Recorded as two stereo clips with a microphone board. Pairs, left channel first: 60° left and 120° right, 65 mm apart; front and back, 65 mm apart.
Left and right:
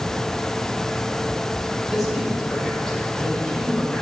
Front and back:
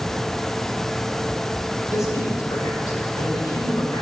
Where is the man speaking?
35° right, 6 m; by 4.0 s 10° right, 5.5 m.